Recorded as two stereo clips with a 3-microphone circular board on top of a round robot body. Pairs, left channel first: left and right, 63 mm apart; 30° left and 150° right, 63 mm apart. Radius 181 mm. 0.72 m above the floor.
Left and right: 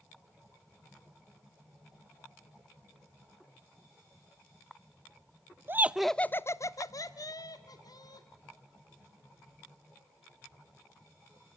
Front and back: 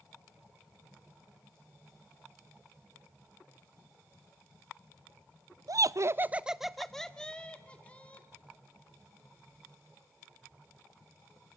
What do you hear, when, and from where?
5.7 s laughter: 140° right, 0.8 m; by 8.3 s 100° left, 2.5 m